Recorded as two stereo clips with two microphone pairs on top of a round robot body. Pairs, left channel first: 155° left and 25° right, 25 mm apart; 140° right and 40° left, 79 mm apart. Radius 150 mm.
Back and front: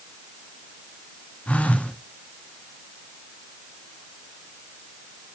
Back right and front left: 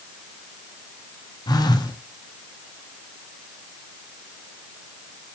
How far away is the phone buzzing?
About 1.7 m.